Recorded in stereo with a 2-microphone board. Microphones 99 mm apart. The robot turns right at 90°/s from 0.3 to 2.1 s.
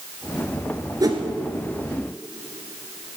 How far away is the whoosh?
About 1.7 m.